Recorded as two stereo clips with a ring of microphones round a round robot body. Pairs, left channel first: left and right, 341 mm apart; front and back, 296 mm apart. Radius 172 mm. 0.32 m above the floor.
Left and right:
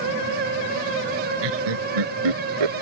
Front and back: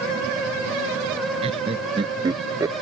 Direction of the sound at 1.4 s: 105° right.